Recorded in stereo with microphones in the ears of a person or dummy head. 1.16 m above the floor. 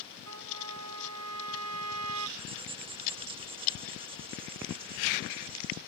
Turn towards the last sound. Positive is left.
turn(degrees=-25)  # may be behind; listen again after turning